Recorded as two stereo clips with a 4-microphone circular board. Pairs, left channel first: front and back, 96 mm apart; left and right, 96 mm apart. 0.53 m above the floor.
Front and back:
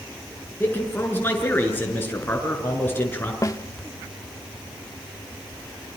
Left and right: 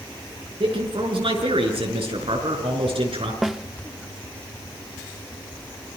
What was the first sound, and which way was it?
A man speaking, 70° right.